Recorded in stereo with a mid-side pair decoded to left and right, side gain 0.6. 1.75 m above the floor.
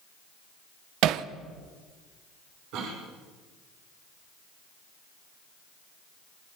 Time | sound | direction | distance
1.0 | hammering | 70° right | 1.3 m
2.7 | a cough | 65° right | 7 m